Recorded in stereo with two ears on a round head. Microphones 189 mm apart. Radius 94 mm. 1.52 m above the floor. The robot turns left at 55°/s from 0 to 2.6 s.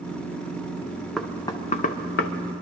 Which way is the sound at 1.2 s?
Centre (ahead or behind).